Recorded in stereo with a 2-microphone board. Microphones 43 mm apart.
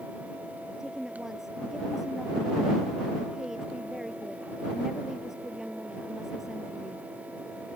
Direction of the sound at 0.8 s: 10° right (ahead or behind).